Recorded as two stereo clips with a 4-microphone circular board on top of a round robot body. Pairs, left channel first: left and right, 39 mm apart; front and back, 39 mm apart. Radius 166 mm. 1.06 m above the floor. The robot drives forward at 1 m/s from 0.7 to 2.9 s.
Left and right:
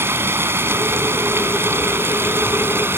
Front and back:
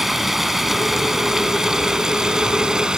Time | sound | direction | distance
0.0 | running water | 95° right | ?